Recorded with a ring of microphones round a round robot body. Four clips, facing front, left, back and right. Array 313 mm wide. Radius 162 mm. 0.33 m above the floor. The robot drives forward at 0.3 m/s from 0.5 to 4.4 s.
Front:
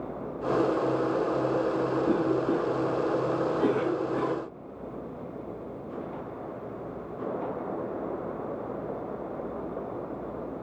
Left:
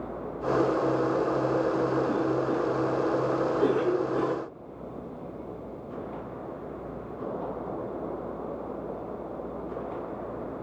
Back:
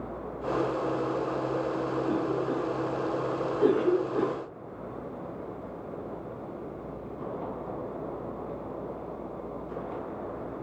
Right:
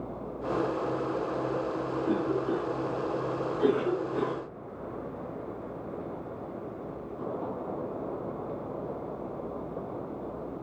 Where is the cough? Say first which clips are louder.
Left 2 dB, front 4 dB; 10° right, 5 m.